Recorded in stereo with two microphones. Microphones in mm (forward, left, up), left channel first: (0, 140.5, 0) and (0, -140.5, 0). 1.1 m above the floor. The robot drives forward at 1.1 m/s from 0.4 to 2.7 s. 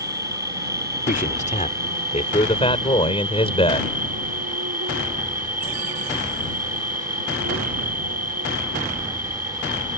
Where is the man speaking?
30° left (ahead or behind); by 3.9 s 20° left (ahead or behind).